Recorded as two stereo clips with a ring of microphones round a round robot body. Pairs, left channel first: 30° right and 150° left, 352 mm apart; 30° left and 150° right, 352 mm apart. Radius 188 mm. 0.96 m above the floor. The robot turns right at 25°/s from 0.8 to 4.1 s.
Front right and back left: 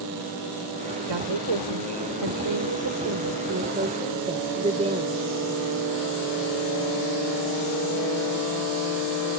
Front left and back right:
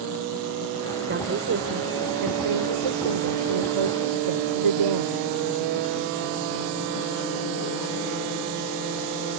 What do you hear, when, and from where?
1.1 s a woman speaking: 150° left; by 5.2 s 135° right